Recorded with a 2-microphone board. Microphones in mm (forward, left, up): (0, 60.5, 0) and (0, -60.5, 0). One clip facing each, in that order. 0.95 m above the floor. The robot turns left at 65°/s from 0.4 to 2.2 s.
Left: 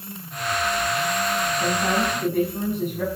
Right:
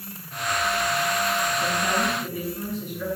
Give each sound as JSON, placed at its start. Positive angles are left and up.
{"t": 1.6, "sound": "a woman speaking", "azimuth_deg": 165, "distance_m": 6.0}